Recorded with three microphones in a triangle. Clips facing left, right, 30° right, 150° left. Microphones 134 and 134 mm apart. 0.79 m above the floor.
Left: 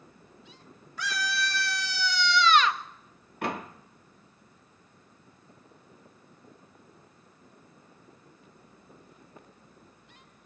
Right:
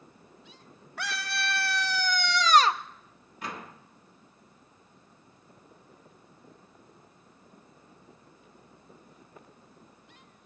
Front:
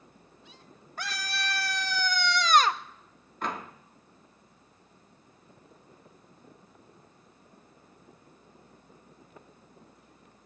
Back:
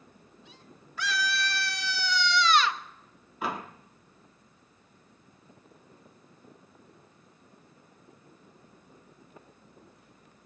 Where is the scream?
70° right, 1.4 m; by 2.8 s 50° right, 0.7 m.